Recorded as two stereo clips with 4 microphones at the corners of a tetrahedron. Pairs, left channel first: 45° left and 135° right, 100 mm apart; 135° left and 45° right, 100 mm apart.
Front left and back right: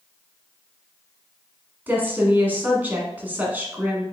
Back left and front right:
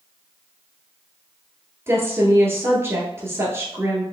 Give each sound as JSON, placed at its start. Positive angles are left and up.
{"t": 1.9, "sound": "a woman speaking", "azimuth_deg": -80, "distance_m": 1.4}